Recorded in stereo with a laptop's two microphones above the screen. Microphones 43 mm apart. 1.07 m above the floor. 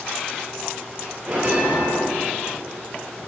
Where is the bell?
35° right (ahead or behind), 3.5 m.